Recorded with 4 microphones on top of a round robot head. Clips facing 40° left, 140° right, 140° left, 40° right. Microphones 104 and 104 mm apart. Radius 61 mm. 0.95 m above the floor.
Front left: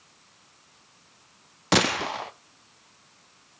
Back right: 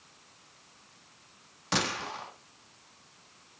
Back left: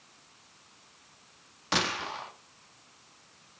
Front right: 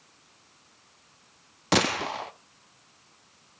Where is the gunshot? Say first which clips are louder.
Front left 8 dB, front right 6 dB; 5° left, 0.6 m.